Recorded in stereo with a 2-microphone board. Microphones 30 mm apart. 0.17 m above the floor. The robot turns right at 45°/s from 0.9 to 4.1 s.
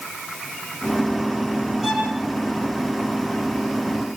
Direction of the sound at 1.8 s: 5° right (ahead or behind).